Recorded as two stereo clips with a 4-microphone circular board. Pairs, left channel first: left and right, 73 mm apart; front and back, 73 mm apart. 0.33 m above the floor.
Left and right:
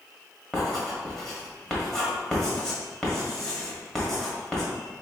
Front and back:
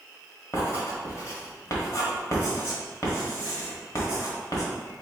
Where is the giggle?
No giggle in this recording.